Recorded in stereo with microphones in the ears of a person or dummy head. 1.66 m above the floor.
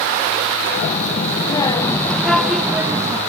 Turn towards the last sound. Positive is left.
turn(degrees=-20)  # may be behind; listen again after turning